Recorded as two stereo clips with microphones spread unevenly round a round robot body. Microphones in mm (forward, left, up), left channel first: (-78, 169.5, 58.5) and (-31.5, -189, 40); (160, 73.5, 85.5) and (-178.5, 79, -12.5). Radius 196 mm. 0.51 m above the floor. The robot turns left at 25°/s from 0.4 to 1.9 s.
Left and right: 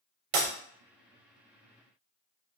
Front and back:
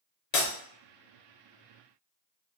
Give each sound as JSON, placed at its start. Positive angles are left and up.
{"t": 0.3, "sound": "breaking glass", "azimuth_deg": -40, "distance_m": 0.6}